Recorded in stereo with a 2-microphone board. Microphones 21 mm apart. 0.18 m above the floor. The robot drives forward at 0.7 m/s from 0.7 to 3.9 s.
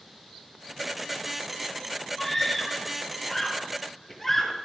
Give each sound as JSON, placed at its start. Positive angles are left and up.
{"t": 2.2, "sound": "a scream", "side_deg": 10, "distance_m": 5.5}